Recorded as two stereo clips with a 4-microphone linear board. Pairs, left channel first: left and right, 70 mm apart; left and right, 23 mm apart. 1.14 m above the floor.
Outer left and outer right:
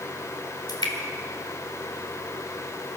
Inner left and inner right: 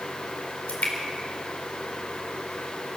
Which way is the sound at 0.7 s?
85° left.